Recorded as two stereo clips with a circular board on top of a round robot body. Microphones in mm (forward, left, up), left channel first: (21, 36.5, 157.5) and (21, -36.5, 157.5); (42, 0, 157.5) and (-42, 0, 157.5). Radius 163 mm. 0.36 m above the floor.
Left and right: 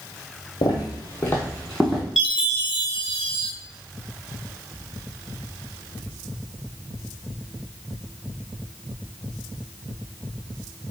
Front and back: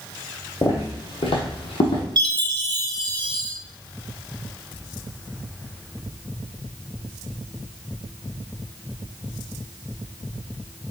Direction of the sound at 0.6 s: 65° left.